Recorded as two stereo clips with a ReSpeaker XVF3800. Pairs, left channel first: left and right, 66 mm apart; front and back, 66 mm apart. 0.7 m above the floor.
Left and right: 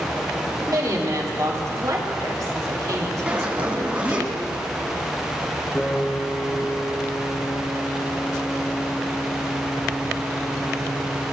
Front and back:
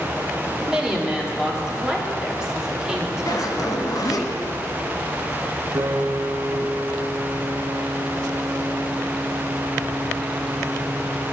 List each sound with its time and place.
0.7 s a woman speaking: 100° right, 2.0 m
3.3 s a zipper: 20° right, 1.4 m
5.8 s a piano: 160° left, 0.8 m